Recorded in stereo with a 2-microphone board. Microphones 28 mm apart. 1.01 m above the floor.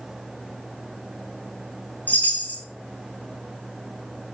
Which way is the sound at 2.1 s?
80° left.